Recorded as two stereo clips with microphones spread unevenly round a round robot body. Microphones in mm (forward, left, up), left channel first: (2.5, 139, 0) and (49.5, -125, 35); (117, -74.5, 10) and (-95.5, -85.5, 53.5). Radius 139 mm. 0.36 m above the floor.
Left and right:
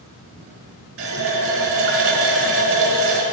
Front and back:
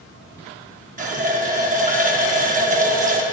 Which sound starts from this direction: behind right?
A running tap, at 1.0 s.